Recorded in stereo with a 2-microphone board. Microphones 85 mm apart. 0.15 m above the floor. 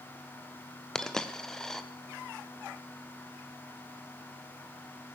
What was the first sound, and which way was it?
A dropped coin, 5° left (ahead or behind).